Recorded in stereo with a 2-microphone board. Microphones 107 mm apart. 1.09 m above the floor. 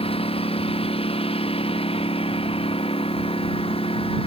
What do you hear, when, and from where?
0.0 s a lawn mower: 65° left (ahead or behind); by 4.3 s 60° left (ahead or behind)